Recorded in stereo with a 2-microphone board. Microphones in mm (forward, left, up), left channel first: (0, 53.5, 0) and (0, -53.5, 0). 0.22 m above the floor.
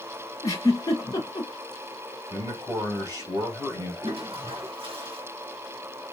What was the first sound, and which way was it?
A giggle, 30° left (ahead or behind).